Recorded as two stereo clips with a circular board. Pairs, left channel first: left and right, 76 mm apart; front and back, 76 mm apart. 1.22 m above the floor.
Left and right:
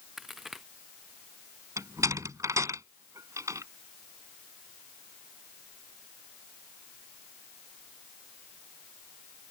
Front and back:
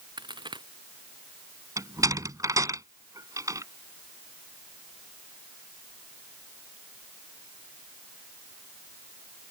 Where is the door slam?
140° right.